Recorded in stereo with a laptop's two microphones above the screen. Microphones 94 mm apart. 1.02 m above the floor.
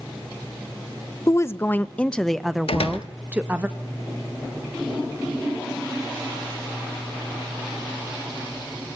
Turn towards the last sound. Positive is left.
turn(degrees=85)